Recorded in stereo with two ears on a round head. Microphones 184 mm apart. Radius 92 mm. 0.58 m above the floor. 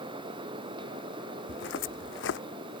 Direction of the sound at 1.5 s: 65° left (ahead or behind).